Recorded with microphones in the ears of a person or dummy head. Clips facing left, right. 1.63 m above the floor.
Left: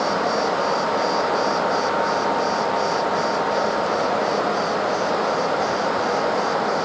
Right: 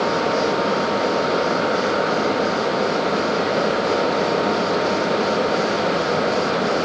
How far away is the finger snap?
I don't hear a finger snap.